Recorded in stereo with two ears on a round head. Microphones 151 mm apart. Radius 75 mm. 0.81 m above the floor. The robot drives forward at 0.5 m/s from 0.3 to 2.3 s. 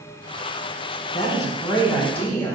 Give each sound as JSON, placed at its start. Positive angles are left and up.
{"t": 1.1, "sound": "a woman speaking", "side_deg": 15, "distance_m": 0.8}